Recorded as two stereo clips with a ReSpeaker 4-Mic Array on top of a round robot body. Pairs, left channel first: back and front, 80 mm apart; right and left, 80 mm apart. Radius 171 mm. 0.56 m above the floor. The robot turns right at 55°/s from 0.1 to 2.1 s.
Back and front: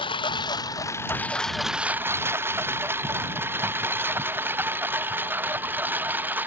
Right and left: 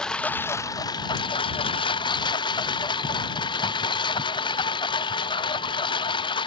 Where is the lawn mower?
170° right; by 6.5 s 70° right.